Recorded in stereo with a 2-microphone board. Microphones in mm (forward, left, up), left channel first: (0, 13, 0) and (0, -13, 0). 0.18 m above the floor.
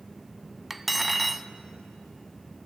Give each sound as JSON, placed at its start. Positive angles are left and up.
{"t": 0.7, "sound": "cutlery clinking", "side_deg": -5, "distance_m": 0.6}